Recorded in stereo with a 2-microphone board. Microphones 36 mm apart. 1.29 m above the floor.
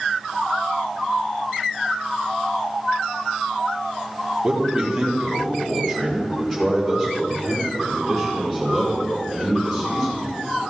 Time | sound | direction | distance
4.4 | a man speaking | 20° right (ahead or behind) | 1.8 m